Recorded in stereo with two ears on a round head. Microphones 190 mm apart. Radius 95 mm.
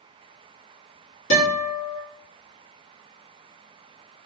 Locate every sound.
1.3 s a guitar: 80° left, 1.6 m